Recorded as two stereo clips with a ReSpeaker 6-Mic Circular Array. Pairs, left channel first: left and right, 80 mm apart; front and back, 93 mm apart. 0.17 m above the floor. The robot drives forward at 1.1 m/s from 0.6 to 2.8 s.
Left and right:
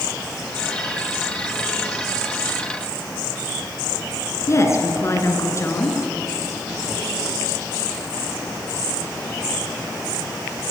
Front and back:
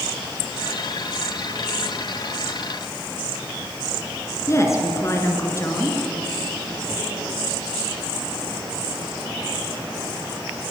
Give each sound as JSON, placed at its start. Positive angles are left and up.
{"t": 4.5, "sound": "a woman speaking", "azimuth_deg": 50, "distance_m": 2.5}